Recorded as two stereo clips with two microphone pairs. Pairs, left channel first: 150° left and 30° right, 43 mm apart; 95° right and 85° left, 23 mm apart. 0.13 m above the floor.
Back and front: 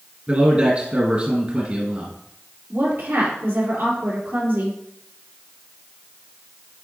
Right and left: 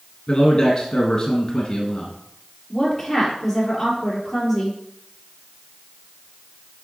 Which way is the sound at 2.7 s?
15° right.